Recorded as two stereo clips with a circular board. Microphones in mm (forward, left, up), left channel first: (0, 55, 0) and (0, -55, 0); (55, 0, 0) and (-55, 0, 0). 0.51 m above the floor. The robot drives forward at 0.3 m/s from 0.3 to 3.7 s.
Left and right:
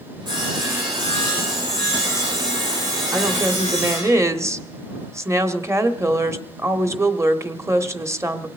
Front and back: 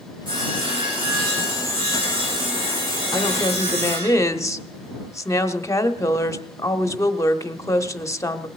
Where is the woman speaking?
35° right, 1.0 m; by 8.5 s 40° right, 0.9 m.